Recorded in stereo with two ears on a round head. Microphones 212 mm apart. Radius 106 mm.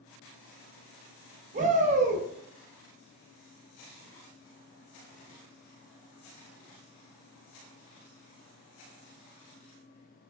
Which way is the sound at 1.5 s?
30° right (ahead or behind).